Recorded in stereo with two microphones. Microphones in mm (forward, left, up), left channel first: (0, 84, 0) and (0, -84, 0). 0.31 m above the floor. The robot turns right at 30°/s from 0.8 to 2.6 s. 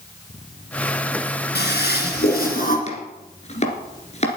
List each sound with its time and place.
1.6 s a toilet flushing: 90° left, 3 m; by 2.8 s 120° left, 3 m
2.9 s chopping: 40° left (ahead or behind), 2.5 m